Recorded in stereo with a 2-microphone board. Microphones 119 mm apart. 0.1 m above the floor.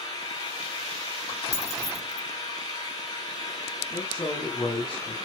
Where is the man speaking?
40° left (ahead or behind), 9.5 m.